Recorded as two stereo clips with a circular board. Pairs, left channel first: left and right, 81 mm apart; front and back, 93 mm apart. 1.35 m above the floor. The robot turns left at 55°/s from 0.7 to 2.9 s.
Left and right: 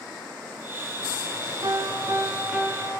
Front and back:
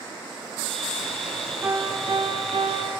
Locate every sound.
1.6 s a piano: 115° right, 3.5 m; by 2.9 s 175° left, 3.5 m